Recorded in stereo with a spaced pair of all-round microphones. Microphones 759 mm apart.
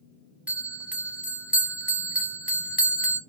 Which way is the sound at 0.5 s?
Centre (ahead or behind).